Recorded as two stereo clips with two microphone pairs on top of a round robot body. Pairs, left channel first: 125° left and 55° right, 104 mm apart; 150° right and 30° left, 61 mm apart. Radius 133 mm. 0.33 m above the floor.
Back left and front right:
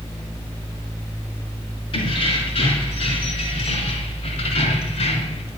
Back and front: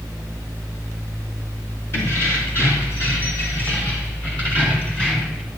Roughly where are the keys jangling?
Behind.